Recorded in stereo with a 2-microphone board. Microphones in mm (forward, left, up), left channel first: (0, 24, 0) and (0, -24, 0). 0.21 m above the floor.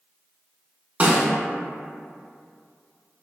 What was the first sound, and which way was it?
A snare drum, 30° right (ahead or behind).